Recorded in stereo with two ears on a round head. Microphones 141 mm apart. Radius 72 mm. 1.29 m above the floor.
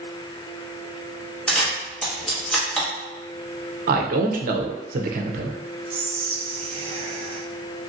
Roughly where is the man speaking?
Right.